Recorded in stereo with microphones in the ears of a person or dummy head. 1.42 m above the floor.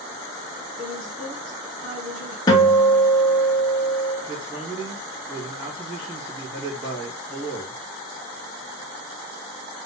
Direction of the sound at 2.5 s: 25° left (ahead or behind).